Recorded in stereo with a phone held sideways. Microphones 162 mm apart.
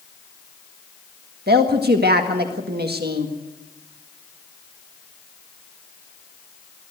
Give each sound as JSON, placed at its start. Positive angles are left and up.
{"t": 1.5, "sound": "a woman speaking", "side_deg": -85, "distance_m": 1.6}